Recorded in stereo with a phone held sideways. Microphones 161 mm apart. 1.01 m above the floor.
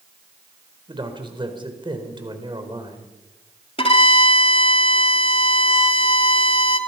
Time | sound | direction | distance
0.9 | a man speaking | 30° right (ahead or behind) | 4 m
3.8 | a violin | 35° left (ahead or behind) | 2.5 m